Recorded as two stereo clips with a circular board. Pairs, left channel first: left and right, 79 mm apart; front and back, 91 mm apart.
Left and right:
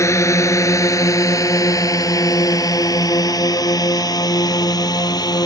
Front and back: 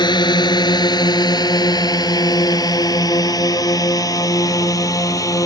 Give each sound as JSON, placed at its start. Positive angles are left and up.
{"t": 0.0, "sound": "a drone", "azimuth_deg": 40}